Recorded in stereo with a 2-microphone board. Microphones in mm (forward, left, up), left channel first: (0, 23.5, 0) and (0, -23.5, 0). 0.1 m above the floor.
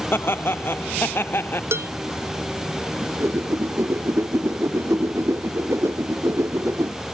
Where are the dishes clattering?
60° right (ahead or behind).